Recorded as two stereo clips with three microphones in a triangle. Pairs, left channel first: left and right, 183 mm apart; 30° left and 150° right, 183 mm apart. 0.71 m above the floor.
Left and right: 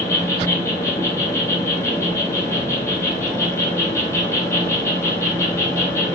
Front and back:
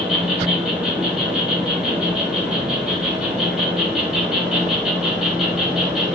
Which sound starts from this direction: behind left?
An insect, at 0.0 s.